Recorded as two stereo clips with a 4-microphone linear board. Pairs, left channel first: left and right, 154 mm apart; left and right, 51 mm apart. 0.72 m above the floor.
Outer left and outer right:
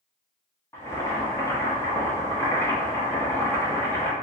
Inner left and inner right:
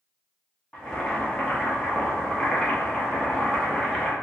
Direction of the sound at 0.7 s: 15° left (ahead or behind).